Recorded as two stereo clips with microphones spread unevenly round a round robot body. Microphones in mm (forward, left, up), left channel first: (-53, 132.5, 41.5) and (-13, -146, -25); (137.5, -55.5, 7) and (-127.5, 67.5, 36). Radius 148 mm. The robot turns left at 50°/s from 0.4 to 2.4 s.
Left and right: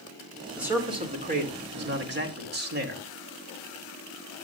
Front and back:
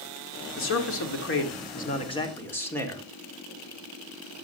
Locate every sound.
0.6 s a man speaking: 10° right, 1.8 m; by 3.0 s 100° right, 1.8 m